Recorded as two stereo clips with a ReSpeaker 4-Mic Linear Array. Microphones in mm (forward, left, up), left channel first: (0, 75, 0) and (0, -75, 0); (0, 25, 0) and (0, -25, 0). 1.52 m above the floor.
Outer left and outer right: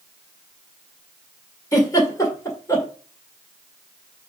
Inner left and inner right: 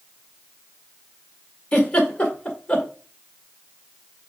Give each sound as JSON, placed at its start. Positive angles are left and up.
{"t": 1.7, "sound": "a giggle", "side_deg": 20, "distance_m": 1.8}